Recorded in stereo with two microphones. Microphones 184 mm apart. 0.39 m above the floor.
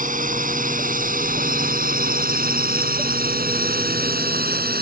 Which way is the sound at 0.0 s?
50° right (ahead or behind).